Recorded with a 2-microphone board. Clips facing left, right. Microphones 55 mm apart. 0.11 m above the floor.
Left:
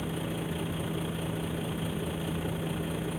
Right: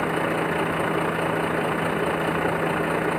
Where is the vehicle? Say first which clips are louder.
Right 11 dB; 70° right (ahead or behind).